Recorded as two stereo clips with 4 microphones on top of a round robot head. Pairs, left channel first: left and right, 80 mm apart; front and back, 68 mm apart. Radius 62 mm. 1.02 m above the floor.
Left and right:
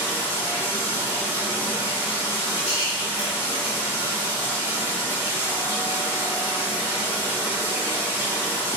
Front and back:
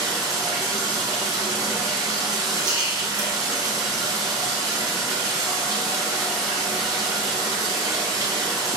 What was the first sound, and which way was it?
Running water, 145° left.